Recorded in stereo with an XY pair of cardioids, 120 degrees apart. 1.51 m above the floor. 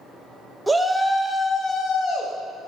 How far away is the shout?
About 0.7 m.